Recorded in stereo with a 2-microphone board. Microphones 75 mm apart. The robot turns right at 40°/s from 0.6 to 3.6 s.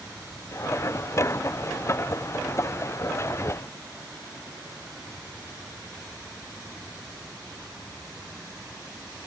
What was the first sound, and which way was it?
Only background noise.